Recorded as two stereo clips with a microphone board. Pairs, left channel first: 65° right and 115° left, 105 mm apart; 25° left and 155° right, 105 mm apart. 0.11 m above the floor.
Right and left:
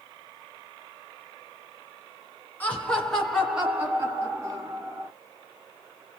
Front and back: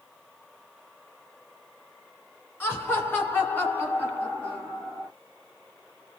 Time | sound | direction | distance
2.6 | laughter | 15° right | 1.6 m